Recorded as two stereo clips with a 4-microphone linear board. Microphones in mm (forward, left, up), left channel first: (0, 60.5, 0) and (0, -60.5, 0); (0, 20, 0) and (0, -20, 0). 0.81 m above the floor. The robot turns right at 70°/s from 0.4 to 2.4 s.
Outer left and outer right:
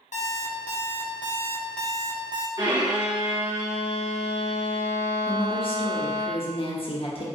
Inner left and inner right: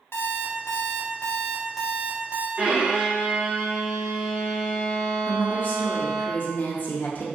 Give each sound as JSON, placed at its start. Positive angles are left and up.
{"t": 0.1, "sound": "an alarm clock", "azimuth_deg": 80, "distance_m": 0.6}
{"t": 2.6, "sound": "a violin", "side_deg": -40, "distance_m": 1.7}
{"t": 5.3, "sound": "a woman speaking", "side_deg": 50, "distance_m": 0.6}